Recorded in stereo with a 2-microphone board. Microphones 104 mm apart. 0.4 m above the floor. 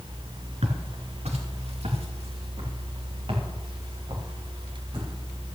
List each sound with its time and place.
0.6 s footsteps: 80° right, 4.5 m; by 5.1 s 45° right (ahead or behind), 7 m